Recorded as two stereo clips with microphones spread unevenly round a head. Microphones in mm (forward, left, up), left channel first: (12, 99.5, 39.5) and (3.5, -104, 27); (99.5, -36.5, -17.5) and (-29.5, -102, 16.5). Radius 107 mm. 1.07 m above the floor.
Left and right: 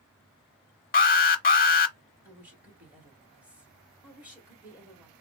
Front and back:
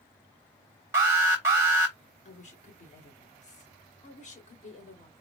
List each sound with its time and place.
0.9 s an alarm: 125° left, 0.8 m
2.2 s a woman speaking: 10° right, 2.5 m